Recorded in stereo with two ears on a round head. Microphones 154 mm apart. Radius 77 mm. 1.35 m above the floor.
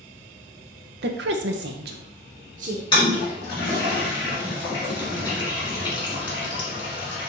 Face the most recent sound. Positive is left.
turn(degrees=30)  # may be behind; listen again after turning